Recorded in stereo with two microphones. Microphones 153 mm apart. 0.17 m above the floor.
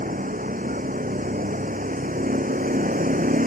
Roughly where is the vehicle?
Right.